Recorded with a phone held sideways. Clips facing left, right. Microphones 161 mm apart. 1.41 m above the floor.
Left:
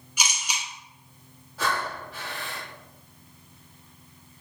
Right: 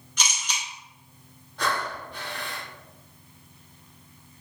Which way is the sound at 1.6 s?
5° left (ahead or behind).